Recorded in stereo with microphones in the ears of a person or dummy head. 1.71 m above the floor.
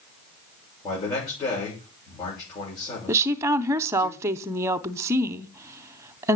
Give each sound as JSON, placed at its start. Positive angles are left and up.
{"t": 0.8, "sound": "a man speaking", "side_deg": 25, "distance_m": 6.5}
{"t": 3.1, "sound": "a woman speaking", "side_deg": -20, "distance_m": 0.7}